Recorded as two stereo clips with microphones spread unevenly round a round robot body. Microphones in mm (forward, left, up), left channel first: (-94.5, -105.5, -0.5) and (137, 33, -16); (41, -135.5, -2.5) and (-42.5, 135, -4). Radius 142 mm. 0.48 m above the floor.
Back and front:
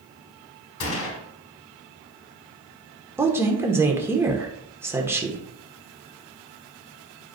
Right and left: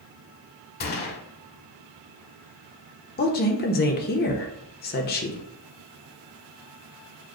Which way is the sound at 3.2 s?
40° right.